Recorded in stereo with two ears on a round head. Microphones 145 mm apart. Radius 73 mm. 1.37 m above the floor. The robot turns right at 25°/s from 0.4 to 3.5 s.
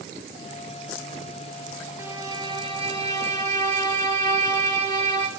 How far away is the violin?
About 2.5 m.